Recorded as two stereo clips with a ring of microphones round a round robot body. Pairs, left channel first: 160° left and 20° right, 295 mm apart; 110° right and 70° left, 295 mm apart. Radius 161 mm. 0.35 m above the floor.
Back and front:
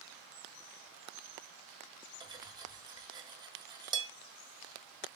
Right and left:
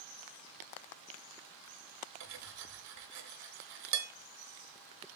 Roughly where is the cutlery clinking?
Ahead left.